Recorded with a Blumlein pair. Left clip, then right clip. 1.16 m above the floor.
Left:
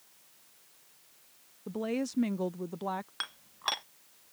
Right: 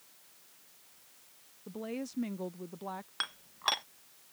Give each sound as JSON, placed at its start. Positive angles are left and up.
{"t": 1.7, "sound": "a woman speaking", "azimuth_deg": 70}
{"t": 3.2, "sound": "dishes clattering", "azimuth_deg": 0}